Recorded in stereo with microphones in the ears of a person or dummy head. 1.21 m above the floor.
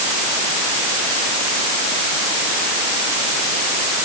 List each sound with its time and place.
Only background noise.